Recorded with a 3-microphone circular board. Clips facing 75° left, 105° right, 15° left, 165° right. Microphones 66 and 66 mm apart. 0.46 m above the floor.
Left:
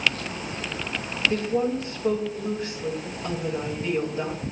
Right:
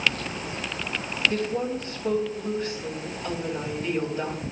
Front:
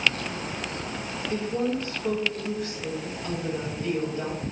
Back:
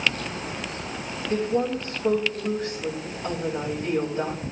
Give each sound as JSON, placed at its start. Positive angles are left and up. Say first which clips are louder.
{"t": 1.3, "sound": "a woman speaking", "louder": "left 3 dB, back 3 dB", "azimuth_deg": 135, "distance_m": 2.0}